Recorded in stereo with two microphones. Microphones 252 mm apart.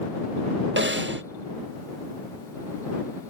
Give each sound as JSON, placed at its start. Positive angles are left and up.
{"t": 0.8, "sound": "a snare drum", "side_deg": -50}